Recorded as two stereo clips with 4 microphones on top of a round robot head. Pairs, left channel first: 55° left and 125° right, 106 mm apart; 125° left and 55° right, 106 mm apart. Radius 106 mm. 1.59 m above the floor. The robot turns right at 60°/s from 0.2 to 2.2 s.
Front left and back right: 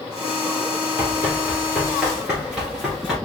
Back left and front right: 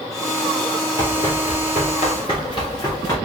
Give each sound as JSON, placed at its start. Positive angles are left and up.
{"t": 1.0, "sound": "running footsteps", "azimuth_deg": 90, "distance_m": 2.5}